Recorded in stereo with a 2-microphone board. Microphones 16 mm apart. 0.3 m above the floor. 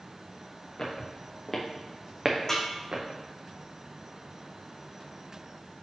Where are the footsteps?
40° left (ahead or behind), 2.5 m; by 3.0 s 60° right (ahead or behind), 1.9 m.